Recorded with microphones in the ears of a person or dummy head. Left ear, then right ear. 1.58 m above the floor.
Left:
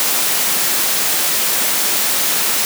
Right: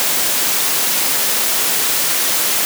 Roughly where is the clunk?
I don't hear a clunk.